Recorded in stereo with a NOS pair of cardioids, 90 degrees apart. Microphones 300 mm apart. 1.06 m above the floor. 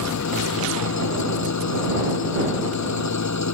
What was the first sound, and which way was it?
An engine running, 65° left.